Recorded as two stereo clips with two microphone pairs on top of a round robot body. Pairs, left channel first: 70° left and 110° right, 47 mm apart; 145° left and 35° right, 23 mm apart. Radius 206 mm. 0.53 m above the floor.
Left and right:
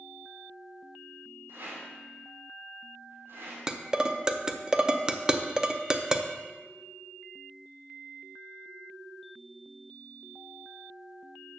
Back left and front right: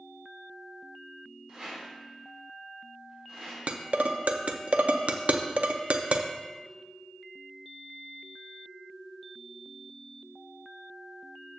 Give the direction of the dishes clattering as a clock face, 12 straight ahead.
1 o'clock.